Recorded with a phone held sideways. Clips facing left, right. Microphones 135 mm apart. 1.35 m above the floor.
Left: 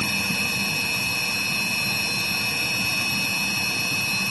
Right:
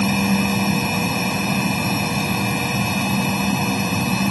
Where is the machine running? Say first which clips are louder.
Right 12 dB; 60° right (ahead or behind).